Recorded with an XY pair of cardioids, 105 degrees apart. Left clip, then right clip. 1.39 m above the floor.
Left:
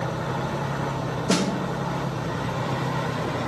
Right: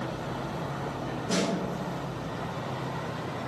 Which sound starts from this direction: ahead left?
A snare drum, at 1.3 s.